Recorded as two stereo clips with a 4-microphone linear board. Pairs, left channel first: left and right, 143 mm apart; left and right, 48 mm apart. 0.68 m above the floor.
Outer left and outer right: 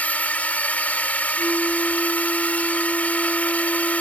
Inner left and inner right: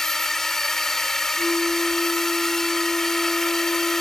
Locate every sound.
0.0 s a drone: 10° left (ahead or behind)
1.4 s a flute: 5° left (ahead or behind)